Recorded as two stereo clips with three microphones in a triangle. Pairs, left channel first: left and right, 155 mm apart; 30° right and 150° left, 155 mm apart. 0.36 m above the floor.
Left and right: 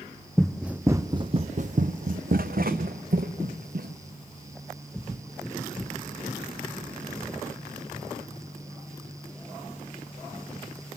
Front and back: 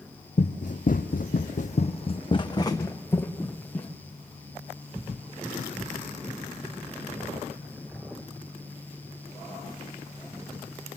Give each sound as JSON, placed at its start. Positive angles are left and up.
{"t": 0.4, "sound": "running footsteps", "azimuth_deg": 5, "distance_m": 0.8}